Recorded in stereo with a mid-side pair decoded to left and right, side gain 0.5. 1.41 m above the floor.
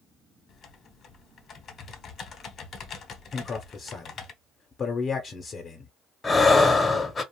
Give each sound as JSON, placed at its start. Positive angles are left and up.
{"t": 0.5, "sound": "typing on a keyboard", "azimuth_deg": 50, "distance_m": 0.7}
{"t": 3.3, "sound": "a man speaking", "azimuth_deg": 40, "distance_m": 0.6}
{"t": 6.2, "sound": "breathing", "azimuth_deg": 25, "distance_m": 0.7}